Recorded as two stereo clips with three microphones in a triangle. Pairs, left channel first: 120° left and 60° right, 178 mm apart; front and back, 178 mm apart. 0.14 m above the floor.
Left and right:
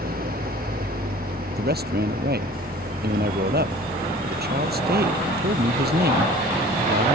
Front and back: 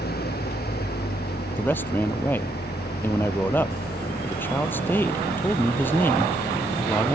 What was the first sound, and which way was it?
An engine running, 25° right.